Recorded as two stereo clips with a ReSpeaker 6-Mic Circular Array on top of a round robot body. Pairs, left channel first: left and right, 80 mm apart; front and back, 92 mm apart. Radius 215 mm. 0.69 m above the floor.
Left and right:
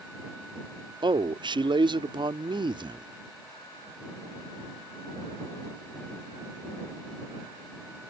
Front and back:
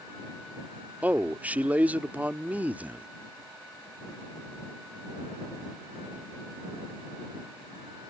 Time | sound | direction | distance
1.0 | a man speaking | 105° right | ?